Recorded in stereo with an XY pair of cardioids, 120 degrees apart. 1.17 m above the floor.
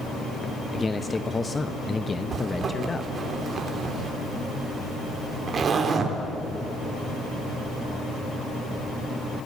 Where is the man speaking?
20° left, 0.9 m.